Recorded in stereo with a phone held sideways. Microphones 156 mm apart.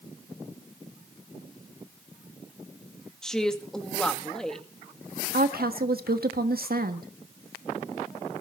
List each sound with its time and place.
3.2 s a woman speaking: 5° left (ahead or behind), 2 m
5.3 s a woman speaking: 75° right (ahead or behind), 1.4 m